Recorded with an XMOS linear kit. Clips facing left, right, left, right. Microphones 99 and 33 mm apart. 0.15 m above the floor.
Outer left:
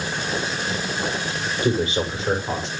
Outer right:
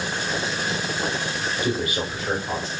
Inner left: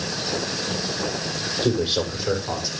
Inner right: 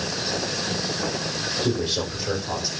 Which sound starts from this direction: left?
A man speaking, at 1.6 s.